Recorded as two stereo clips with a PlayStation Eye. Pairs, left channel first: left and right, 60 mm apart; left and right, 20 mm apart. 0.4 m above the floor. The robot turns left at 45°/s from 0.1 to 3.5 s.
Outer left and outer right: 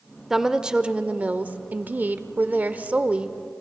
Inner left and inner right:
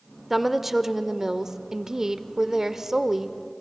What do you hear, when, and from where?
0.3 s a woman speaking: 5° right (ahead or behind), 0.9 m; by 3.4 s 15° right (ahead or behind), 0.9 m